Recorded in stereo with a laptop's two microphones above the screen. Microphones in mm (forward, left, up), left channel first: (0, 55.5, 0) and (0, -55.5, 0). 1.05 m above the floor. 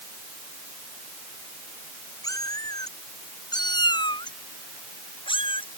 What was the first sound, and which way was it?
A cat meowing, 35° left (ahead or behind).